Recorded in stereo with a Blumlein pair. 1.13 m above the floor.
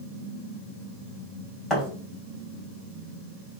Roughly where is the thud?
Ahead.